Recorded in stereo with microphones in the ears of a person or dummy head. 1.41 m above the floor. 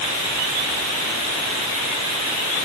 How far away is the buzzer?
No buzzer in this recording.